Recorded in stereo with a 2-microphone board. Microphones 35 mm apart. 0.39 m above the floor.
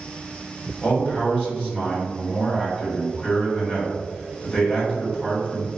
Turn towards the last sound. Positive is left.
turn(degrees=30)  # may be behind; listen again after turning